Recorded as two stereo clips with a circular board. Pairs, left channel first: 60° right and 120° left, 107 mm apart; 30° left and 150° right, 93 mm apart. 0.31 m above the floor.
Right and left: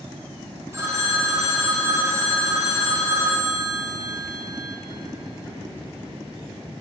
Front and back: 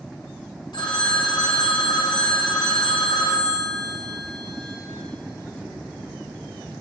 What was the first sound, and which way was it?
A phone ringing, 60° left.